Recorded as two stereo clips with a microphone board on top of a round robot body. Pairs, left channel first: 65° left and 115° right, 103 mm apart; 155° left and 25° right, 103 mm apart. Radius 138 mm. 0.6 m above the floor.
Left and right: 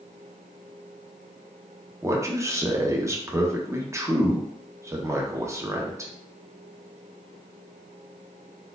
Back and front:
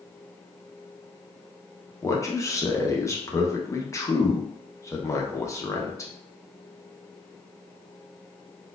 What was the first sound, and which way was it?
A man speaking, 160° right.